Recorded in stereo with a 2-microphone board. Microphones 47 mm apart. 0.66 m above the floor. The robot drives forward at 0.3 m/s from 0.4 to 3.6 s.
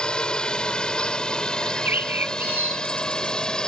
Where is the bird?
50° right (ahead or behind); by 3.5 s 40° right (ahead or behind).